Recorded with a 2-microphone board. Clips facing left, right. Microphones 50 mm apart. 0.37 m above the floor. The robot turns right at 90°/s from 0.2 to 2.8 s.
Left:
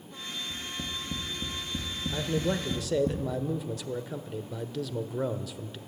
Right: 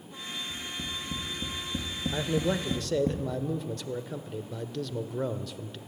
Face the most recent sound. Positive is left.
turn(degrees=5)  # may be behind; listen again after turning